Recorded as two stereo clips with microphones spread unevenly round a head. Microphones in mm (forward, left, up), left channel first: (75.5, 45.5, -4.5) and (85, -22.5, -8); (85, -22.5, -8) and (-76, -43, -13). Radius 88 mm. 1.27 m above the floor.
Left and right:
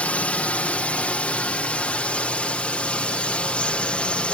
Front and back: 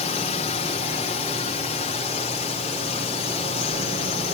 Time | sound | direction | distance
0.0 | a drone | 35° left | ?